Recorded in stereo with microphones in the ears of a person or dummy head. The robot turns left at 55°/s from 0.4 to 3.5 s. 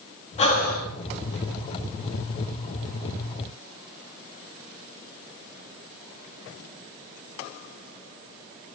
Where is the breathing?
35° left (ahead or behind), 1.8 m; by 0.9 s 65° left (ahead or behind), 1.8 m.